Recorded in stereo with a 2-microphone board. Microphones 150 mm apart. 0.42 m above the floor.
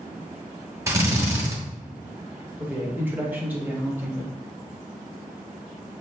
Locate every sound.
0.9 s a drill: 20° right (ahead or behind), 0.8 m
2.6 s a man speaking: 15° right (ahead or behind), 0.9 m